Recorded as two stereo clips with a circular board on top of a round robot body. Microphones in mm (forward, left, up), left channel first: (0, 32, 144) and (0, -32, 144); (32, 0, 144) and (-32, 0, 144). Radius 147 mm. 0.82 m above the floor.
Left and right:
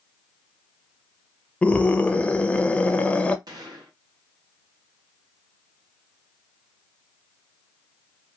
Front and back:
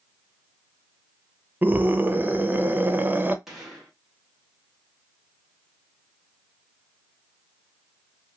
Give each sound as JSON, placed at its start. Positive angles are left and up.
{"t": 1.6, "sound": "a scream", "azimuth_deg": 145, "distance_m": 0.8}
{"t": 3.5, "sound": "a gunshot", "azimuth_deg": -95, "distance_m": 1.3}